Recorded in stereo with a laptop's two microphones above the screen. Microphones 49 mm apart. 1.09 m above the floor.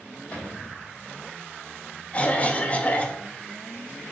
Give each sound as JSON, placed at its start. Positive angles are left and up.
{"t": 0.3, "sound": "a cupboard door", "side_deg": 25, "distance_m": 1.6}
{"t": 2.1, "sound": "a cough", "side_deg": 25, "distance_m": 0.6}